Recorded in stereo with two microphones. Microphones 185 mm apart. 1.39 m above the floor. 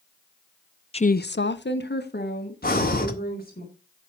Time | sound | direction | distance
0.9 | a woman speaking | 30° left (ahead or behind) | 0.6 m
2.6 | breathing | 55° left (ahead or behind) | 1.9 m